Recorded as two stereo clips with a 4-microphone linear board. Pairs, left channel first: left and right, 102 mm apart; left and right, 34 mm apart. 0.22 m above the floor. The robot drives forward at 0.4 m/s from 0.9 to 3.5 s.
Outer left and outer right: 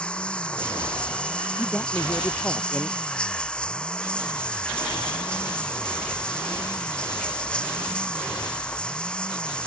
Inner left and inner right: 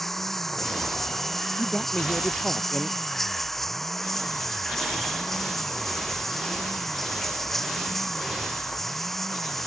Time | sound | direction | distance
0.0 | running water | 10° left (ahead or behind) | ?
1.6 | a man speaking | 15° left (ahead or behind) | ?